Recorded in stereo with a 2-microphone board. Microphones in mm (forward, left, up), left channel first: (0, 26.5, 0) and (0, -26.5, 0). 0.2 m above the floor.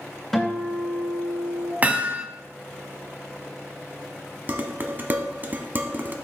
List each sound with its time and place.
0.3 s a guitar: 5° left (ahead or behind), 2.5 m
1.8 s hammering: 30° right (ahead or behind), 0.9 m
4.5 s dishes clattering: 35° right (ahead or behind), 1.0 m